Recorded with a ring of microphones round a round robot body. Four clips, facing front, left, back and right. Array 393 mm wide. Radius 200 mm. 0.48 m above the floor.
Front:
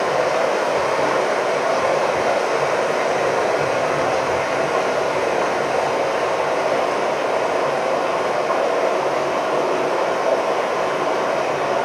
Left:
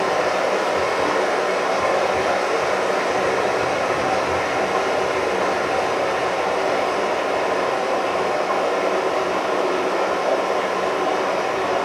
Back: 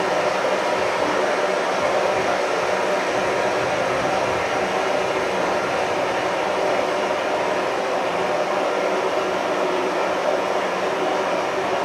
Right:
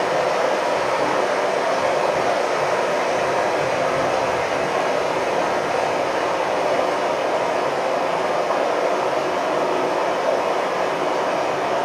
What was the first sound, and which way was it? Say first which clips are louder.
Running water: even, front 2 dB; 30° left.